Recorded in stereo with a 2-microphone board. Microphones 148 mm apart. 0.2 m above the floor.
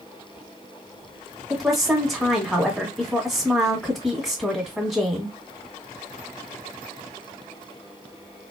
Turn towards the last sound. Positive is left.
turn(degrees=0)  # may be behind; listen again after turning